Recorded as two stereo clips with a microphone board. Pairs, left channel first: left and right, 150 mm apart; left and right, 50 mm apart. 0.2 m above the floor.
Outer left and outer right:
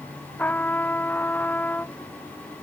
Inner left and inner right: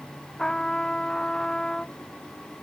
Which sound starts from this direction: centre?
A trumpet, at 0.4 s.